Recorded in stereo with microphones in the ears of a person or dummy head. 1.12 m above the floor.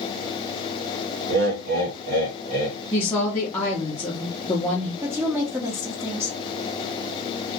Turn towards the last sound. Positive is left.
turn(degrees=-10)  # may be behind; listen again after turning